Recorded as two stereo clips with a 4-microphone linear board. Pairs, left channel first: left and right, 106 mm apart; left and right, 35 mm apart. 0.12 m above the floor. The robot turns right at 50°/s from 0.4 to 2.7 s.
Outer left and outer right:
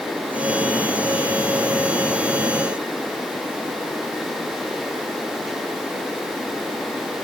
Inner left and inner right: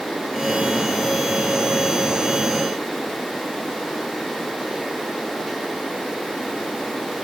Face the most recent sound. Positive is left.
No sound to turn to.